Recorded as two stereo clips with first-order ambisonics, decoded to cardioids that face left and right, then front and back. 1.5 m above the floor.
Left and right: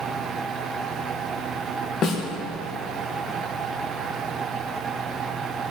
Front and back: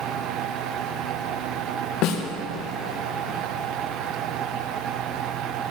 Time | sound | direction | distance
2.0 | a snare drum | 35° left | 1.3 m